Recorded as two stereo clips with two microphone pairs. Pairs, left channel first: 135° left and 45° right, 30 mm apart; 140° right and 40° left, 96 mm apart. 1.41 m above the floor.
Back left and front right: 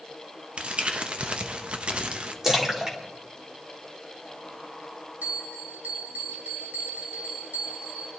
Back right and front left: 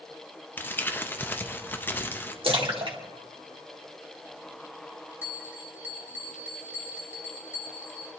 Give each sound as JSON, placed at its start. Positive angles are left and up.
{"t": 0.6, "sound": "crumpling", "azimuth_deg": -80, "distance_m": 0.8}
{"t": 2.4, "sound": "a splash", "azimuth_deg": 25, "distance_m": 1.8}
{"t": 5.2, "sound": "a bell", "azimuth_deg": -35, "distance_m": 2.5}